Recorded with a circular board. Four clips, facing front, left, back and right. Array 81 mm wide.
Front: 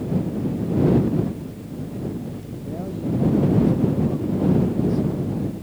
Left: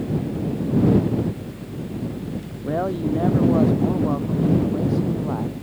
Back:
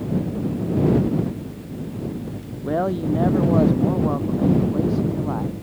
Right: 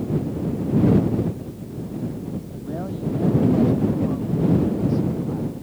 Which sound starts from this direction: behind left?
A man speaking, at 2.6 s.